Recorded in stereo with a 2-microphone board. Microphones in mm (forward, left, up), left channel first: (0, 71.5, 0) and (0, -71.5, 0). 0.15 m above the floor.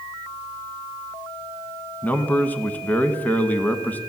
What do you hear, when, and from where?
2.0 s a man speaking: 10° left (ahead or behind), 1.1 m